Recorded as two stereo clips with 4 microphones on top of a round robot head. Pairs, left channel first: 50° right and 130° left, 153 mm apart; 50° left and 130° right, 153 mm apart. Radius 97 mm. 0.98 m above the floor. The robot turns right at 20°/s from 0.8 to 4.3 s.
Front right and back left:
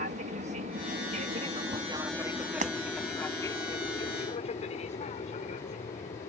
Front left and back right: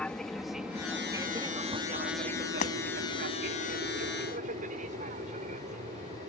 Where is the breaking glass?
90° left.